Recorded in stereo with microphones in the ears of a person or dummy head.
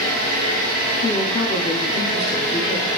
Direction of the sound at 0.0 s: 45° right (ahead or behind).